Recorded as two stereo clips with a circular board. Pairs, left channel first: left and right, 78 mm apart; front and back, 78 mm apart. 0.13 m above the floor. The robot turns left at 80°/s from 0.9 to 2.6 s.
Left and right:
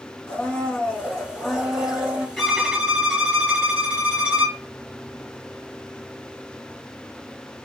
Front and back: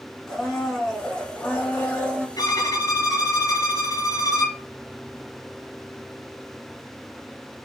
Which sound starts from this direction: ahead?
A violin, at 2.4 s.